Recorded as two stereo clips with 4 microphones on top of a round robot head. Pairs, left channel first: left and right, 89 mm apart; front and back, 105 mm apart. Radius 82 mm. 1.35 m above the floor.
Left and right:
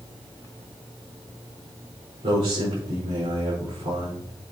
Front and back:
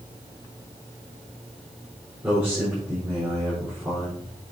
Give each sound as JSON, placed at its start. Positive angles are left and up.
{"t": 2.2, "sound": "a man speaking", "azimuth_deg": -105, "distance_m": 5.0}